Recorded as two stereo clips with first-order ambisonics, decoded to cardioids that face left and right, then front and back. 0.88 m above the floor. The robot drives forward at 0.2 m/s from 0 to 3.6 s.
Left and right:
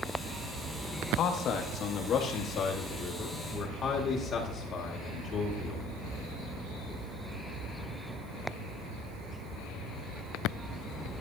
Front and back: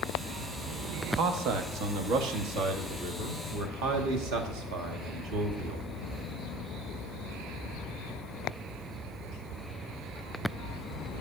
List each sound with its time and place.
1.0 s a man speaking: 140° left, 0.8 m; by 5.8 s 155° left, 1.2 m